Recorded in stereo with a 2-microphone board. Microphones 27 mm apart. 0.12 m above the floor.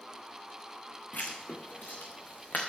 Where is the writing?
70° left (ahead or behind), 3.5 m.